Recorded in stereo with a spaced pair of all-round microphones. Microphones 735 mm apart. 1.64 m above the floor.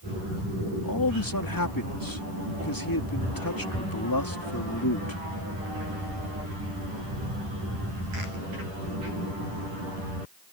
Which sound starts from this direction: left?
A man speaking, at 0.7 s.